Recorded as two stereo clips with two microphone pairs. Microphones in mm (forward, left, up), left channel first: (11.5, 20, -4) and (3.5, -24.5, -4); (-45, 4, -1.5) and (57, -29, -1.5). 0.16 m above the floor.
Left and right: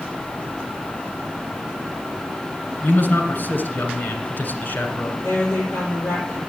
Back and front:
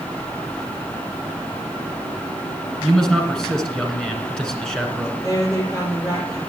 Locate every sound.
2.8 s a man speaking: 80° left, 2 m
5.2 s a woman speaking: 105° left, 4 m